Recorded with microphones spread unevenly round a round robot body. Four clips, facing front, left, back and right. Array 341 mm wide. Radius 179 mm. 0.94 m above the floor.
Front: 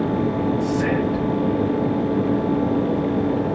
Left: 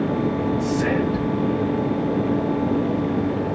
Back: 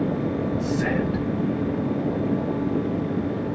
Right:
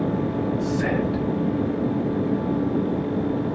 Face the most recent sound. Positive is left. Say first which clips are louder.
# left 2 dB, front 3 dB
turn(degrees=-155)